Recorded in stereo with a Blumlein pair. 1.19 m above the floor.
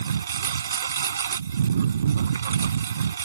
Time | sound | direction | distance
0.0 | a lawn mower | 70° right | ?